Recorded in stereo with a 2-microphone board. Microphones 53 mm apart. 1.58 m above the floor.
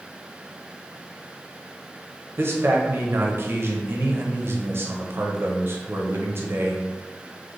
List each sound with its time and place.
2.4 s a man speaking: 50° right (ahead or behind), 0.6 m